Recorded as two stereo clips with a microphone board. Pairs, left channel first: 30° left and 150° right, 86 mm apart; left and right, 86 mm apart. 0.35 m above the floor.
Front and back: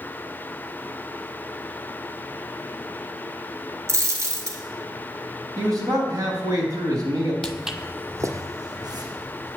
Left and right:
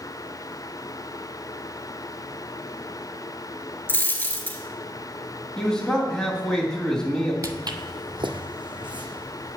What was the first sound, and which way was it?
A dropped coin, 155° left.